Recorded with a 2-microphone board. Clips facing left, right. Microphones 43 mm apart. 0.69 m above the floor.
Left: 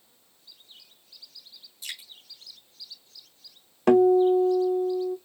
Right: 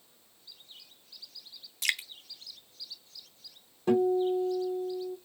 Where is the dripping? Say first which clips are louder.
Right 9 dB; 70° right (ahead or behind), 0.6 m.